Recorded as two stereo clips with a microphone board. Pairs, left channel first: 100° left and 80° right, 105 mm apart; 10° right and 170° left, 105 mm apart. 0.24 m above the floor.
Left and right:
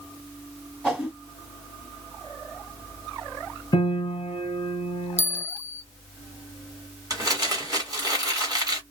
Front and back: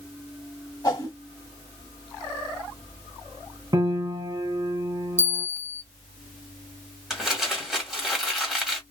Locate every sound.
0.8 s a whoosh: 5° right, 1.6 m
3.7 s a piano: 125° left, 0.7 m
5.2 s a bell: 80° right, 0.6 m
7.1 s crumpling: 105° right, 1.6 m